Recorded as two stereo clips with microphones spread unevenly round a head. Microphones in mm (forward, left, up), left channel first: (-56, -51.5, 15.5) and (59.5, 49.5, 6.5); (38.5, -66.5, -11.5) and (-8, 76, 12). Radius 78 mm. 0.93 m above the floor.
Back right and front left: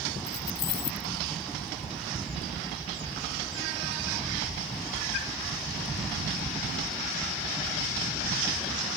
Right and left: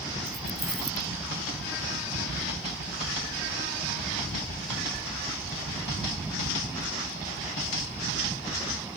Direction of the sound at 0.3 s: 165° right.